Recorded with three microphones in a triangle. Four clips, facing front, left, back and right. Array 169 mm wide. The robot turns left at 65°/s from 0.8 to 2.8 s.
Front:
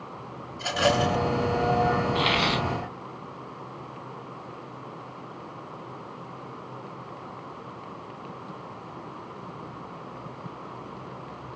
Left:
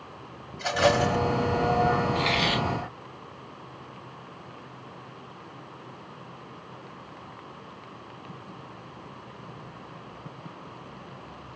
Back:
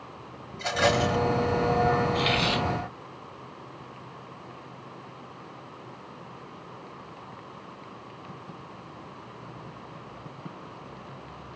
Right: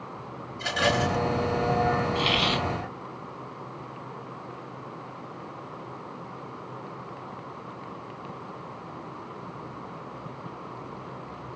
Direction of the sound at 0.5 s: 110° left.